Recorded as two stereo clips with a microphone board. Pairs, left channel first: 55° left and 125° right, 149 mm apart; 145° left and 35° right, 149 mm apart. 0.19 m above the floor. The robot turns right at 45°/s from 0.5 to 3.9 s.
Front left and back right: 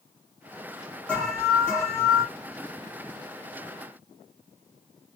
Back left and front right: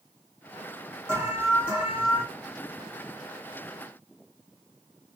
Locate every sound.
1.1 s an alarm: 5° right, 1.5 m; by 2.2 s 45° left, 1.5 m